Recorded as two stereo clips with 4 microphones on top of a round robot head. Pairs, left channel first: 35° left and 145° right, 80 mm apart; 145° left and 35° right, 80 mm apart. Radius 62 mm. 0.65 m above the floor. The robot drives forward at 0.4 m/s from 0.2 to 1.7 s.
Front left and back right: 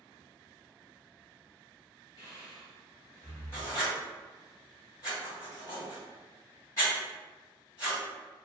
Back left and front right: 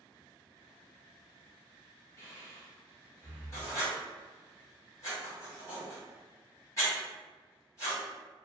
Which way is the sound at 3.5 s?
90° left.